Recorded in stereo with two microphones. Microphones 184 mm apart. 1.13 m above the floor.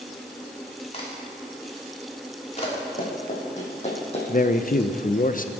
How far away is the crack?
About 3 m.